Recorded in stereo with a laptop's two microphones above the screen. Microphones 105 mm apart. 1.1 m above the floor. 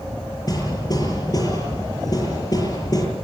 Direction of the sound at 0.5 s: 40° left (ahead or behind).